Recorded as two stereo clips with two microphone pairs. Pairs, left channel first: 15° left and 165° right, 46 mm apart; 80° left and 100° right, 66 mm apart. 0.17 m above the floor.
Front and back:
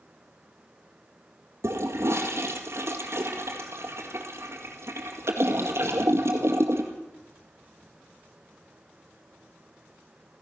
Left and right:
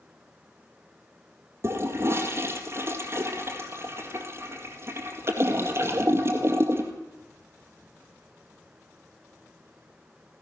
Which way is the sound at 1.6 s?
150° right.